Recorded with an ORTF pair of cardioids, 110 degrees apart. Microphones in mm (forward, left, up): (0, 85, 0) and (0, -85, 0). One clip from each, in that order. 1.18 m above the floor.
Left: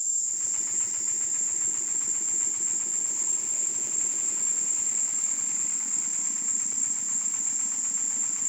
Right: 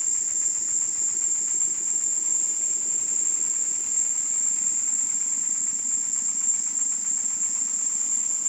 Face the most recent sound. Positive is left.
turn(degrees=-35)